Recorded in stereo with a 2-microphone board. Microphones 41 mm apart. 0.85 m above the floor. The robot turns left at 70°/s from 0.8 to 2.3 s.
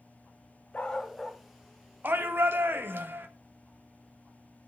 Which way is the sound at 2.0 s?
55° right (ahead or behind).